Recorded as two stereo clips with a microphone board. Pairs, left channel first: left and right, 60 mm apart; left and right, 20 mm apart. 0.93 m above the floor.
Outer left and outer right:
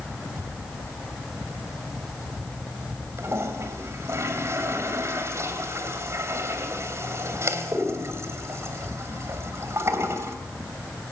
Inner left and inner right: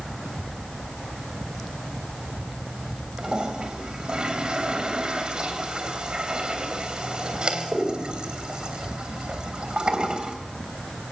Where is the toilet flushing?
50° right (ahead or behind), 3 m.